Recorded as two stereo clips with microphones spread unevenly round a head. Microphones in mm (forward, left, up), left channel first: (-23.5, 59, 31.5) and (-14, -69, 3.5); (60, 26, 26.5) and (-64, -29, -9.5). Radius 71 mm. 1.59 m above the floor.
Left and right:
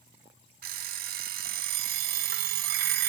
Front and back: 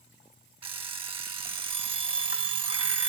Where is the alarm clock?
100° right, 2.5 m.